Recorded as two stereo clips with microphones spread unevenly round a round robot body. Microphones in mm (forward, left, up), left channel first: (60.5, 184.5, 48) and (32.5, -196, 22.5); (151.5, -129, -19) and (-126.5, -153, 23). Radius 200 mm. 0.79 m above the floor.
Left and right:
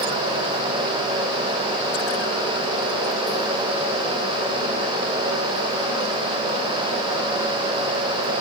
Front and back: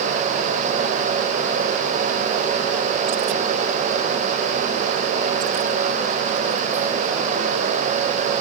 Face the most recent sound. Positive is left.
No sound to turn to.